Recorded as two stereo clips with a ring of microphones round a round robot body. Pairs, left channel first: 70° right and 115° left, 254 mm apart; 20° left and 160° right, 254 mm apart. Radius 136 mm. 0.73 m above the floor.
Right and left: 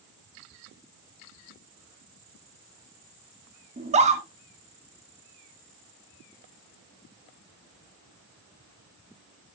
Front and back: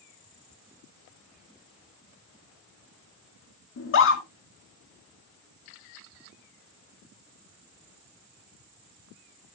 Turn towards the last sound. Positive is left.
turn(degrees=50)